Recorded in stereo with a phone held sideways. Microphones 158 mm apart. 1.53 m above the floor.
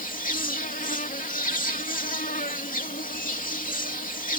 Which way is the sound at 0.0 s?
60° left (ahead or behind).